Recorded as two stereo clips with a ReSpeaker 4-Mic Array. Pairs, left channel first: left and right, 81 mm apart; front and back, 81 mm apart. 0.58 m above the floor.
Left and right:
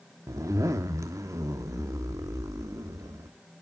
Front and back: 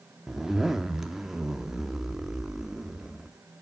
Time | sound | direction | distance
0.3 | a zipper | 100° right | 0.9 m